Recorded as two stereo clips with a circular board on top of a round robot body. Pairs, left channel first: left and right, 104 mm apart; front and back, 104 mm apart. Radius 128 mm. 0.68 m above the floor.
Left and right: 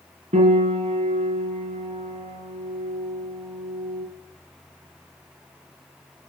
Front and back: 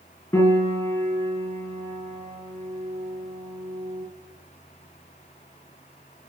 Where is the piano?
70° right, 2.5 m.